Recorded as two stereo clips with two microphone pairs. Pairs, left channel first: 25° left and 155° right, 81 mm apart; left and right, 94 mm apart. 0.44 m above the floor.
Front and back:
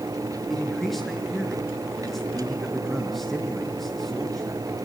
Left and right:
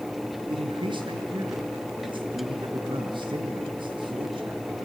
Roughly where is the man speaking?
Ahead right.